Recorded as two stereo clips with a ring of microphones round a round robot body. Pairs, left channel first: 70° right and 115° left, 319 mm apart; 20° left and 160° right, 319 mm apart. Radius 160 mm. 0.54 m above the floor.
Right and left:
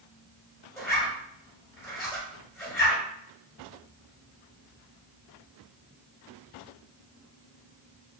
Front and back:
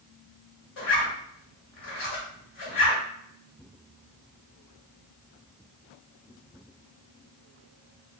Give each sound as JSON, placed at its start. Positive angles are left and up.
{"t": 0.8, "sound": "a zipper", "azimuth_deg": 15, "distance_m": 1.7}